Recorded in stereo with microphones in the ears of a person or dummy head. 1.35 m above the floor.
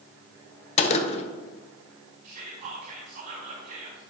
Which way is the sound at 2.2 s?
55° right (ahead or behind).